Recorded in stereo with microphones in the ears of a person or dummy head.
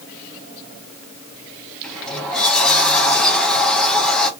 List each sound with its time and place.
1.8 s a sliding door: 5° left (ahead or behind), 0.8 m